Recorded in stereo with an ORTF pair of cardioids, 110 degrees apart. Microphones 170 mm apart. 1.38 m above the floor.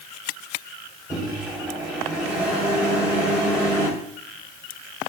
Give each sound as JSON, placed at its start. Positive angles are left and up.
{"t": 1.1, "sound": "a microwave", "azimuth_deg": -5, "distance_m": 5.0}